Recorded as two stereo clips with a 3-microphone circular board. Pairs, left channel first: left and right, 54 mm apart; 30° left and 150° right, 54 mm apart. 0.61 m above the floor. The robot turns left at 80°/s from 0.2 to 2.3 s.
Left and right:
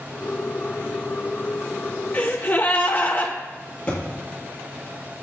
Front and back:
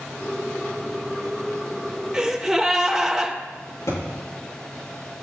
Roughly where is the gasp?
Behind left.